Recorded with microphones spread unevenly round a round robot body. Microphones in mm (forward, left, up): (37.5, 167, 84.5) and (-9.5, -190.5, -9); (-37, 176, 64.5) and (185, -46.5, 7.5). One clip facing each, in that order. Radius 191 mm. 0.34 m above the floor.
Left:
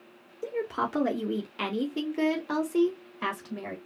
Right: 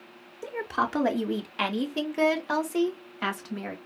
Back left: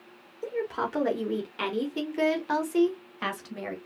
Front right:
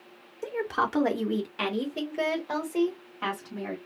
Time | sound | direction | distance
0.4 | a woman speaking | 45° right | 1.1 m